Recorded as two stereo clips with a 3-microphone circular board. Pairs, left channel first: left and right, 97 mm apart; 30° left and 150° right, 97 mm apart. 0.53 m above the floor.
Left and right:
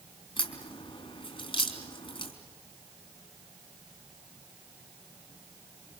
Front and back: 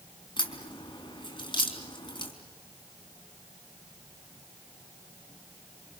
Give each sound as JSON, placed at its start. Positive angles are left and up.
{"t": 0.4, "sound": "a crack", "azimuth_deg": 65, "distance_m": 4.0}